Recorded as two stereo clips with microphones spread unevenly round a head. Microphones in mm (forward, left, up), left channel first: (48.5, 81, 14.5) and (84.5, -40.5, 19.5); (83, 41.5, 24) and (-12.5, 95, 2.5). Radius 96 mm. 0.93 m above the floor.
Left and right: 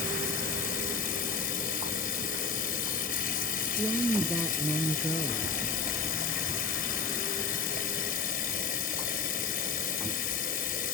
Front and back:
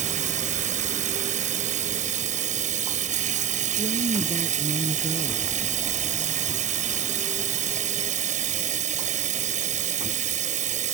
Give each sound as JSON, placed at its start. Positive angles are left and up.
{"t": 0.0, "sound": "running water", "azimuth_deg": 145}
{"t": 3.8, "sound": "a woman speaking", "azimuth_deg": -175}